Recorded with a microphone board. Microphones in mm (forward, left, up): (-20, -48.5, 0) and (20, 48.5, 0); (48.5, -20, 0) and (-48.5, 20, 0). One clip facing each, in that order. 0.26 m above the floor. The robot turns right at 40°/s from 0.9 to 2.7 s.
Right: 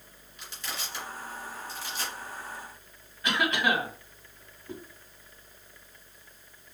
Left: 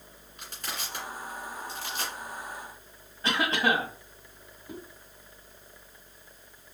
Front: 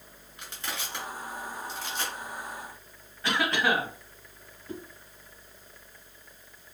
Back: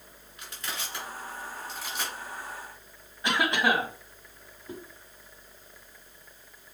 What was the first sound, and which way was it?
Crushing, 35° left.